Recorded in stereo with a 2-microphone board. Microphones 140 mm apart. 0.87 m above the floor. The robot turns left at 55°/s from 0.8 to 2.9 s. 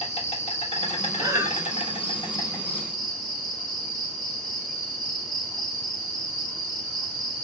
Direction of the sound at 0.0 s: 120° left.